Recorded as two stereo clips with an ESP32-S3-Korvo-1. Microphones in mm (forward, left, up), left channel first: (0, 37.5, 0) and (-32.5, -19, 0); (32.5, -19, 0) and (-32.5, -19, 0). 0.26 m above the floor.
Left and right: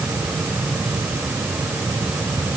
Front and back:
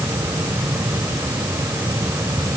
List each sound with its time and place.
Only background noise.